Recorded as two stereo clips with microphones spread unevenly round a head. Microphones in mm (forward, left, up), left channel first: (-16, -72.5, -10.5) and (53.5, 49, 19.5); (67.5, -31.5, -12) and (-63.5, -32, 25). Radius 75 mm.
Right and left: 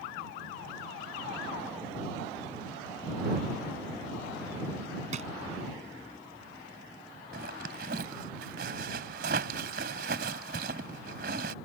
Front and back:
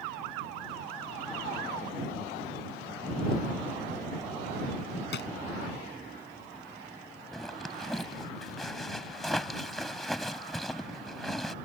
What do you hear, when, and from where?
5.1 s a drawer: 25° left
7.3 s a zipper: 90° left